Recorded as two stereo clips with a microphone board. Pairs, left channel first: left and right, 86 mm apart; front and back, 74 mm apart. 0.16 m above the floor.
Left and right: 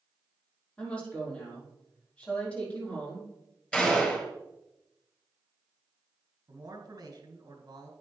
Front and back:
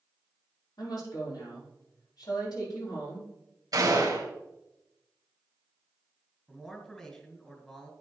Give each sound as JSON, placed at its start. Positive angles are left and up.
{"t": 0.8, "sound": "a woman speaking", "azimuth_deg": 15, "distance_m": 5.5}
{"t": 3.7, "sound": "a gunshot", "azimuth_deg": 165, "distance_m": 2.5}
{"t": 6.5, "sound": "a man speaking", "azimuth_deg": -75, "distance_m": 2.0}